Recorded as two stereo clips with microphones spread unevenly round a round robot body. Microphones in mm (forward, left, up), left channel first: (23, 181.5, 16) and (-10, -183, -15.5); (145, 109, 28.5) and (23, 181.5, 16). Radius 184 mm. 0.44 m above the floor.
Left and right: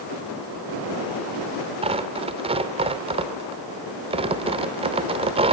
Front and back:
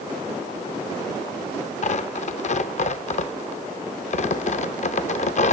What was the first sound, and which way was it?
Tearing paper, 30° right.